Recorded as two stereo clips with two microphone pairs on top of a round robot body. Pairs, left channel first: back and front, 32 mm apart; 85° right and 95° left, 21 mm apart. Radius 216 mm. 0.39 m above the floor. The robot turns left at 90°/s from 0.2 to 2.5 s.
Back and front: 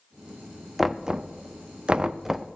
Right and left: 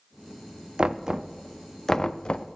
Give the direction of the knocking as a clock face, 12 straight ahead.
10 o'clock.